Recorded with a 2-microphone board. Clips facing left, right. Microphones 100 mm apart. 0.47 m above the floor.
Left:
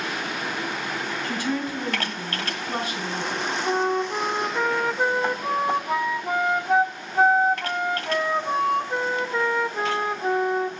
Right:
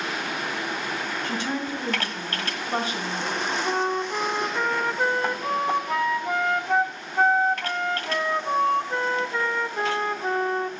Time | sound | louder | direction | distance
1.2 | a woman speaking | left 3 dB | 30° right (ahead or behind) | 4 m
3.6 | a flute | left 4 dB | 5° left (ahead or behind) | 0.8 m